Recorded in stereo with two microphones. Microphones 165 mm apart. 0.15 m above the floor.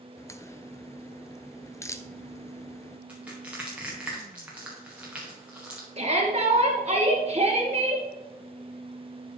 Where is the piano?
I don't hear a piano.